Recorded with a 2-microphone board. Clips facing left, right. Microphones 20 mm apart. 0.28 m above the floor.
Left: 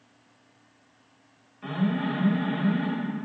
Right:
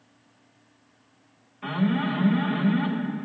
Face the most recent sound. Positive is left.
turn(degrees=-20)  # may be behind; listen again after turning